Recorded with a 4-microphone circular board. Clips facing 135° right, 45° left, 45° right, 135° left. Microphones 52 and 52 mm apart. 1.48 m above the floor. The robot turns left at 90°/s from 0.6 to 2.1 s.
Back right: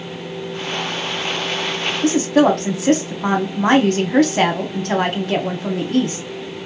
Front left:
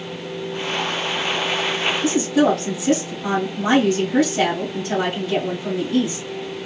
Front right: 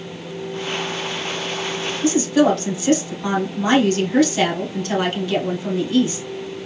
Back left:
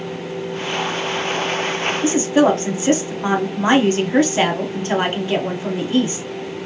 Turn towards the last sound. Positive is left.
turn(degrees=-165)